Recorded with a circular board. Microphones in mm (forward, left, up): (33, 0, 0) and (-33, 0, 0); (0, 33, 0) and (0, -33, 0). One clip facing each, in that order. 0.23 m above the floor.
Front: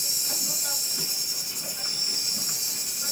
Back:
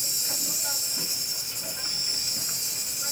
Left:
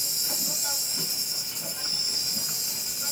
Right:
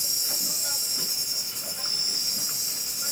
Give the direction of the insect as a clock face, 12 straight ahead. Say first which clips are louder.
Even, left 1 dB; 9 o'clock.